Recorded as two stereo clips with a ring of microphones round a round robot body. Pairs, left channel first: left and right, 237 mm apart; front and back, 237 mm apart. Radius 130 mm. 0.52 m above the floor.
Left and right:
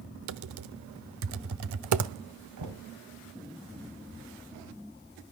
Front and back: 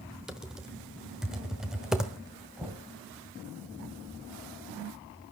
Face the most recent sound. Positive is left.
turn(degrees=-95)